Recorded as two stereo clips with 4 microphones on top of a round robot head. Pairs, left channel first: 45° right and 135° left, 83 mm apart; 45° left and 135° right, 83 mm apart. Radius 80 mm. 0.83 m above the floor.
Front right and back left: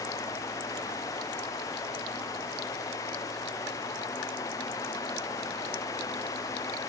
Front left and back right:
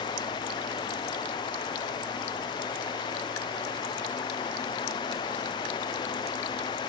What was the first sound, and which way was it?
Only background noise.